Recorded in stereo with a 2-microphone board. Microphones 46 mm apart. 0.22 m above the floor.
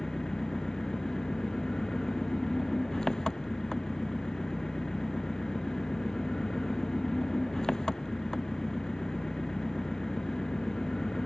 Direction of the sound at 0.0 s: 15° left (ahead or behind).